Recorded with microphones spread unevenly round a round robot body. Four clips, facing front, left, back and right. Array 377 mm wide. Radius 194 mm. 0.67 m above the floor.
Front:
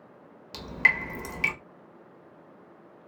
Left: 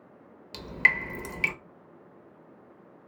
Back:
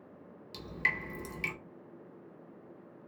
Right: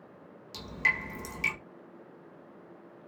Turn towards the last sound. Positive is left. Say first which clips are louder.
# left 5 dB, front 8 dB
turn(degrees=40)